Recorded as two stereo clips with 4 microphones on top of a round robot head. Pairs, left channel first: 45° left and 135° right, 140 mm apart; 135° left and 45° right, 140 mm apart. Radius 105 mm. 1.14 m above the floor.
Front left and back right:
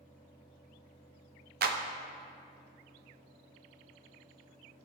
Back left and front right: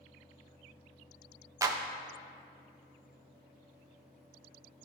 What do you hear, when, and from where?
1.6 s a clap: 115° right, 0.9 m